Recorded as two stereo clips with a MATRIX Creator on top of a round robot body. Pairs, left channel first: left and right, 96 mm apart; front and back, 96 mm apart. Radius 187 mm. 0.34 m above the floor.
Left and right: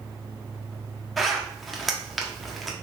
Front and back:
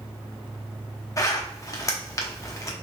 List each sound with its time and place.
1.2 s a zipper: straight ahead, 1.1 m